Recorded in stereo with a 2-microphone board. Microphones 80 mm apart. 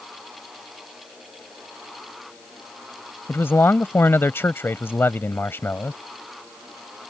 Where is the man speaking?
30° left (ahead or behind).